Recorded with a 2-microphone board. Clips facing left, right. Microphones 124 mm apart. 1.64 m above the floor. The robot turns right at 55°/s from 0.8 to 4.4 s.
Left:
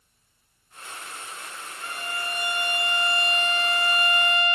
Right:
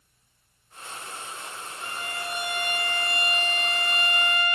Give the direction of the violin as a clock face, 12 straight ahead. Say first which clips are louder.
Left 2 dB; 1 o'clock.